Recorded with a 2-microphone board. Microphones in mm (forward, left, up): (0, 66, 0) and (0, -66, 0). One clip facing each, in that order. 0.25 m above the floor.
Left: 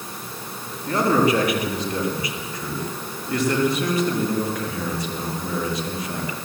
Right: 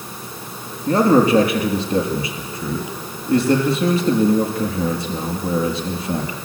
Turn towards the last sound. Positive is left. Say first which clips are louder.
# right 5 dB
turn(degrees=-30)  # may be behind; listen again after turning